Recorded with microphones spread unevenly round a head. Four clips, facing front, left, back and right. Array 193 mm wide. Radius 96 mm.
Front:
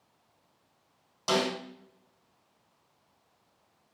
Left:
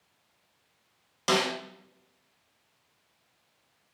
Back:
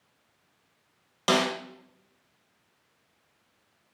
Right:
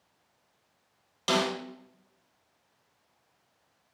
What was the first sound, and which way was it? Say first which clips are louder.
A snare drum: left 1 dB, back 3 dB; 170° left.